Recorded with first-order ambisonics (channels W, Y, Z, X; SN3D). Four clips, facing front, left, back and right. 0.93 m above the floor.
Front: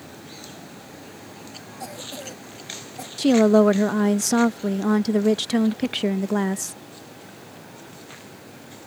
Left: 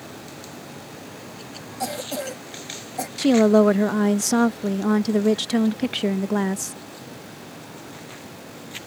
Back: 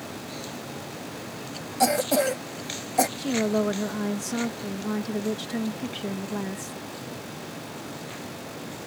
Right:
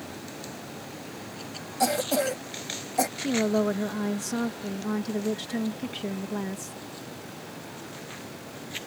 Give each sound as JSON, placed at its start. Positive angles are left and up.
{"t": 1.8, "sound": "a cough", "azimuth_deg": -165}
{"t": 3.2, "sound": "a woman speaking", "azimuth_deg": 45}